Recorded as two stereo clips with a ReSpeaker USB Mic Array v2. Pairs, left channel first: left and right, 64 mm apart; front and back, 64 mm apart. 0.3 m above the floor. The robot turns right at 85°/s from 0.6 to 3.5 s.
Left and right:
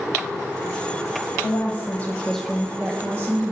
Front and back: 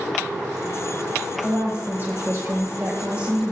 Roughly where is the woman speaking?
Left.